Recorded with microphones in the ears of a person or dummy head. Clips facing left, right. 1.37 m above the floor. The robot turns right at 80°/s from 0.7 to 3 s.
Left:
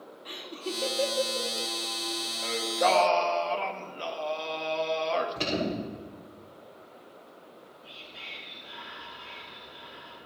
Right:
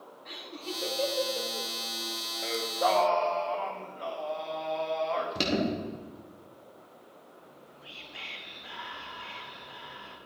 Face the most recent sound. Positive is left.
turn(degrees=-65)  # may be behind; listen again after turning